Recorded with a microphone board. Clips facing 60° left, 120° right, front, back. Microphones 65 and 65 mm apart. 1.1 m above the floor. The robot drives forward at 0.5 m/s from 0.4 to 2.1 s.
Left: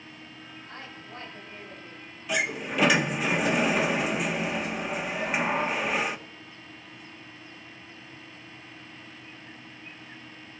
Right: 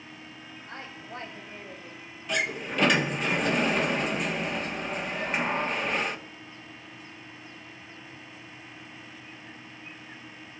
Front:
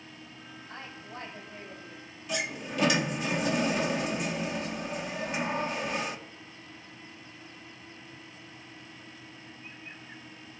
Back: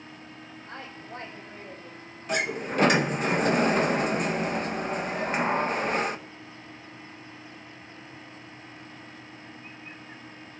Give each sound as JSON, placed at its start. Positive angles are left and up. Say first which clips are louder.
{"t": 0.7, "sound": "a woman speaking", "louder": "right 3 dB, back 3 dB", "azimuth_deg": 175, "distance_m": 5.5}
{"t": 2.3, "sound": "a sliding door", "louder": "left 1 dB, back 6 dB", "azimuth_deg": 145, "distance_m": 0.9}